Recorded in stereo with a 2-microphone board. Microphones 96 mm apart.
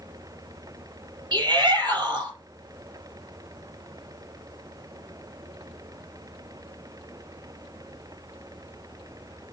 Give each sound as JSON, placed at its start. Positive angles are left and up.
{"t": 1.3, "sound": "a shout", "side_deg": -50, "distance_m": 4.5}